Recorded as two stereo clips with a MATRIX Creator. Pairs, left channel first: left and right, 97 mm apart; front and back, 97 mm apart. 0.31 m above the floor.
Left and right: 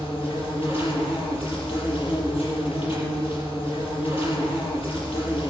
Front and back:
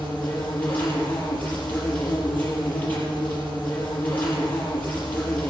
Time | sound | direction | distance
0.0 | an insect | 75° left | 6 m